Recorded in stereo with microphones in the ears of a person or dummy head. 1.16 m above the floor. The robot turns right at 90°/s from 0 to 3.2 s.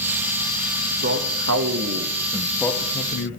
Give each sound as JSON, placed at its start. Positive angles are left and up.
{"t": 1.0, "sound": "a man speaking", "azimuth_deg": -135, "distance_m": 1.6}